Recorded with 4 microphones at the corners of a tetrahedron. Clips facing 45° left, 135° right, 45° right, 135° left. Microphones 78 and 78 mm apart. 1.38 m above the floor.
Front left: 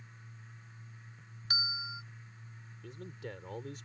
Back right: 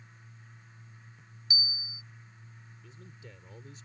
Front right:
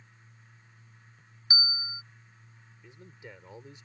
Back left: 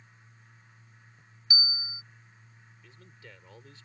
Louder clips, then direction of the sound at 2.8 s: Front left 9 dB, front right 5 dB; 25° left.